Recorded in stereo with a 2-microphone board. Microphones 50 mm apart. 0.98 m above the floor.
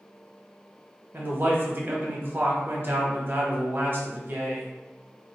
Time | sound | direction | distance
1.1 | a man speaking | 40° right (ahead or behind) | 0.8 m